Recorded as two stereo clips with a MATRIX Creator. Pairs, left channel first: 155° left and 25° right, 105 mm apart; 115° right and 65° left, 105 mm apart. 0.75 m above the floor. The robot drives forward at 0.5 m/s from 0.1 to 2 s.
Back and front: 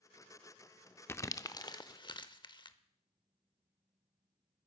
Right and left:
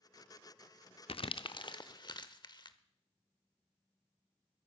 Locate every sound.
1.1 s crumpling: 135° right, 0.5 m; by 2.8 s 160° right, 0.9 m